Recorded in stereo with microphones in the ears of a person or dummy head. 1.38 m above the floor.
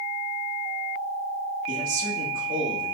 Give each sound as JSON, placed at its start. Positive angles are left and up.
{"t": 1.7, "sound": "a man speaking", "side_deg": -50, "distance_m": 2.0}